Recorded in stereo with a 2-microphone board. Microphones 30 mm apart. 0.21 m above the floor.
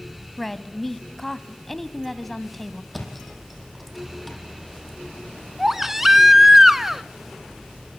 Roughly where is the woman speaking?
Centre.